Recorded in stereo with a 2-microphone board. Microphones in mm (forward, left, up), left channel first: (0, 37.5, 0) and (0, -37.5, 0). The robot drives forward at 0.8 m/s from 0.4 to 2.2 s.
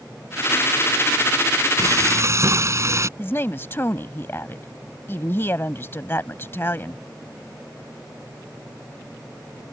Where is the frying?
45° right (ahead or behind); by 3.1 s 40° right (ahead or behind).